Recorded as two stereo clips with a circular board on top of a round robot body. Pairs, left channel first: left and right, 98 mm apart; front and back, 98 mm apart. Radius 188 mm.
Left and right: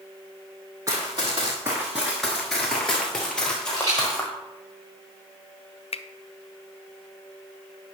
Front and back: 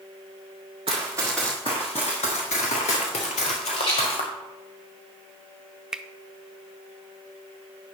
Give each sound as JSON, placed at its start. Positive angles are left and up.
{"t": 0.9, "sound": "running footsteps", "azimuth_deg": -150, "distance_m": 0.5}
{"t": 3.8, "sound": "a rattle", "azimuth_deg": -35, "distance_m": 4.0}
{"t": 5.9, "sound": "a finger snap", "azimuth_deg": 95, "distance_m": 0.6}